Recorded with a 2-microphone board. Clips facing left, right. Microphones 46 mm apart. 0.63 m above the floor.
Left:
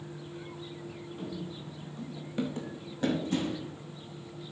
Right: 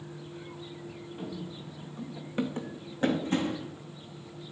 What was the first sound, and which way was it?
Running footsteps, 20° right (ahead or behind).